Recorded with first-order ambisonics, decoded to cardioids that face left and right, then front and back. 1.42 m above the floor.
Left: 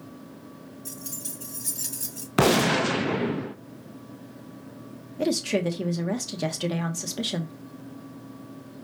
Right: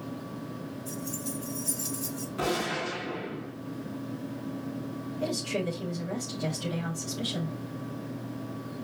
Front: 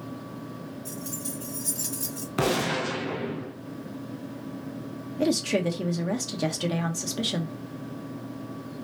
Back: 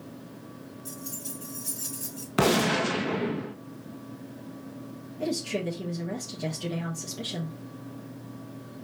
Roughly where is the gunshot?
Left.